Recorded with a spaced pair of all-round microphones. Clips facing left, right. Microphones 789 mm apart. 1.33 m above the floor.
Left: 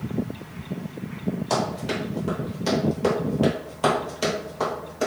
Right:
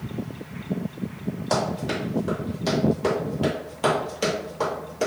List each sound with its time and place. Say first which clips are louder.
1.5 s running footsteps: even; 45° left (ahead or behind), 1.8 m; by 5.1 s 30° right (ahead or behind), 1.5 m